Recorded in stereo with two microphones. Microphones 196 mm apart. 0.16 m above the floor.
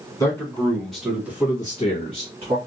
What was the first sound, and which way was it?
A man speaking, 15° left (ahead or behind).